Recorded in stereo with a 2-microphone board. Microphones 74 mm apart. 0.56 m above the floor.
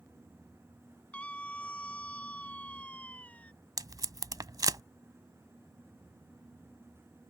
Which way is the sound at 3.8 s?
60° right (ahead or behind).